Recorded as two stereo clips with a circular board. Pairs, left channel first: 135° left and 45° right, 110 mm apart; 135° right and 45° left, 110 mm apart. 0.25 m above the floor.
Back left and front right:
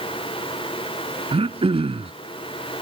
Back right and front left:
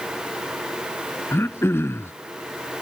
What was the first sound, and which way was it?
Throat clearing, 70° right.